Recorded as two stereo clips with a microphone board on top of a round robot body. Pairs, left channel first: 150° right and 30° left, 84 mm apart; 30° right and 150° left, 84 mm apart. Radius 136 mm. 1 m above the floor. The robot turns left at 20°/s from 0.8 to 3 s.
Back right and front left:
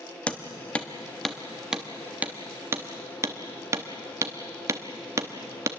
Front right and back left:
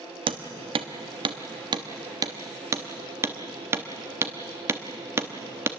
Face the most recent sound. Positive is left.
turn(degrees=90)